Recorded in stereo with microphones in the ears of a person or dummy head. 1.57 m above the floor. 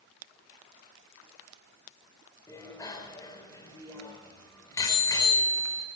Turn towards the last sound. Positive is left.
turn(degrees=15)  # may be behind; listen again after turning